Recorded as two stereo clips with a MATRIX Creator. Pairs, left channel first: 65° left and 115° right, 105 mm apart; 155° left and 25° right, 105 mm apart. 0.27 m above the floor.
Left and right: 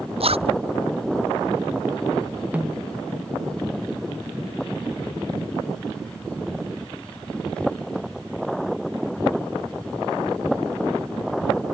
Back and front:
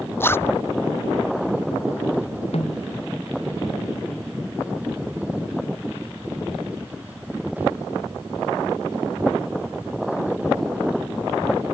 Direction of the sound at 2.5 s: 170° left.